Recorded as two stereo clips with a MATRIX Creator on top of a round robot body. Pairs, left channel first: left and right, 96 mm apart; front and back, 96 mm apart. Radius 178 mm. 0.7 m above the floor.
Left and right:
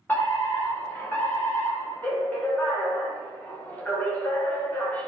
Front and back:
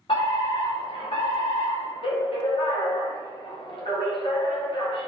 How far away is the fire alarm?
About 6 m.